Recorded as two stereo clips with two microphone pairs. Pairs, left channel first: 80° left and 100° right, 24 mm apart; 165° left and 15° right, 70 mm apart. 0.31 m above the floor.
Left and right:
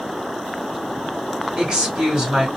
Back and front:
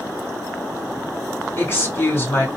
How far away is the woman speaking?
About 2 m.